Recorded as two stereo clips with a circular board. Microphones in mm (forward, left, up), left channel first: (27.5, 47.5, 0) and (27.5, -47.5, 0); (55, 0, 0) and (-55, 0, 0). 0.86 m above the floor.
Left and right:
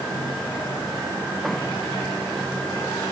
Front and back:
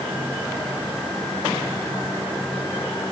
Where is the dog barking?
No dog barking in this recording.